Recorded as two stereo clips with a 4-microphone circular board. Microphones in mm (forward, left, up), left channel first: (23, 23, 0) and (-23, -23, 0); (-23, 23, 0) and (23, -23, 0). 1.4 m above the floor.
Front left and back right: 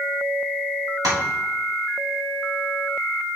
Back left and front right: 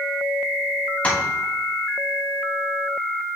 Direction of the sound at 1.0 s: 155° right.